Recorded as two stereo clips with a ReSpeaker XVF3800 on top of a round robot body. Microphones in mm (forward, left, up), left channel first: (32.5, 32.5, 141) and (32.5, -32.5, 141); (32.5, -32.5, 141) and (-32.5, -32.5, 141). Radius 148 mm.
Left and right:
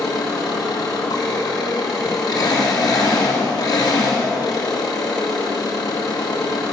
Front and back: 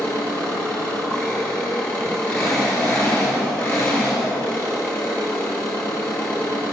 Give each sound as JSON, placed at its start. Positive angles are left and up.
{"t": 0.0, "sound": "an engine running", "azimuth_deg": 70, "distance_m": 1.9}